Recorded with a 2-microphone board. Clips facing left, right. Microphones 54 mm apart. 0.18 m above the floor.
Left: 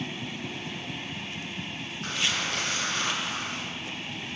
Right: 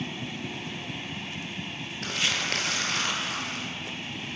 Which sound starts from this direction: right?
Crumpling, at 2.0 s.